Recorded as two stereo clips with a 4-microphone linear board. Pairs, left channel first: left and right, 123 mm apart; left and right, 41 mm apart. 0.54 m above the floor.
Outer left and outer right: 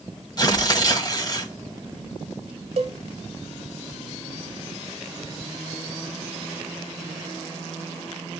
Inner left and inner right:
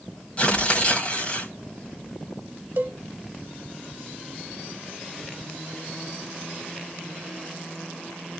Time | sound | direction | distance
0.4 | tearing paper | 35° left (ahead or behind) | 1.4 m
2.8 | a cowbell | 55° right (ahead or behind) | 0.9 m